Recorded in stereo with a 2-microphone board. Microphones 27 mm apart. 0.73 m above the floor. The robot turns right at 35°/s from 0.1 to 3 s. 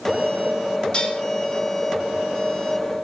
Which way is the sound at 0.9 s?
45° left (ahead or behind).